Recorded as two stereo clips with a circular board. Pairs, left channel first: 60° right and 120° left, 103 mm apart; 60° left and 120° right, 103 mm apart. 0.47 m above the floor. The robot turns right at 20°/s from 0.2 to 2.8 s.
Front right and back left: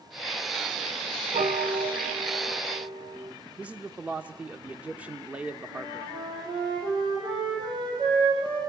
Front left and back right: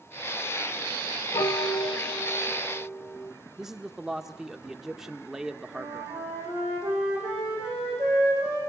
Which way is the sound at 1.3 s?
110° left.